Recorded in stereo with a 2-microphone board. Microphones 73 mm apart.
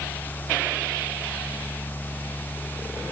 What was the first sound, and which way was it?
Only background noise.